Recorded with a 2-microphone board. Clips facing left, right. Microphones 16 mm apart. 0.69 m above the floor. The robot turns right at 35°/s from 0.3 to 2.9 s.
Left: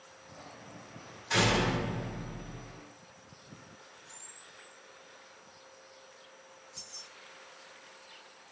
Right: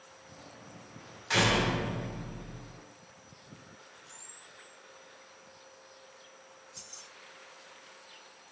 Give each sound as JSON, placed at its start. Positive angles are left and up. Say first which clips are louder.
{"t": 1.3, "sound": "a door slam", "louder": "right 1 dB", "azimuth_deg": -145, "distance_m": 1.8}
{"t": 4.1, "sound": "a camera shutter", "louder": "even", "side_deg": -10, "distance_m": 1.3}
{"t": 6.8, "sound": "keys jangling", "louder": "left 3 dB", "side_deg": -30, "distance_m": 1.3}